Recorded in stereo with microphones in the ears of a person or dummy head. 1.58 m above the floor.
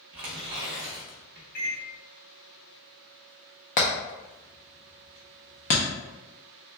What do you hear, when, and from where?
0.1 s tearing paper: 30° right (ahead or behind), 0.9 m
1.6 s a microwave: 60° left (ahead or behind), 1.5 m
3.8 s hammering: 30° left (ahead or behind), 0.6 m